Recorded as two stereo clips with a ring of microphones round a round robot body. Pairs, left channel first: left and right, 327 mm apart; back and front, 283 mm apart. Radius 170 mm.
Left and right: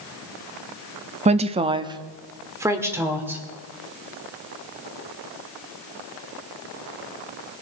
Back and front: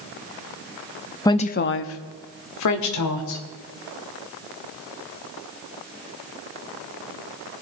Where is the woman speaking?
120° right, 0.7 m; by 3.4 s 175° right, 2.5 m.